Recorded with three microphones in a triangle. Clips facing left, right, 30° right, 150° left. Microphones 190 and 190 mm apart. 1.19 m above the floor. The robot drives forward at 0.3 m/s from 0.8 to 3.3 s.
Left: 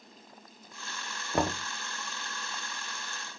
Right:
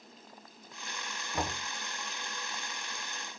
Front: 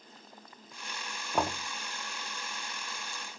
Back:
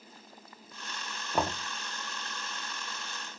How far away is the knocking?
About 0.7 m.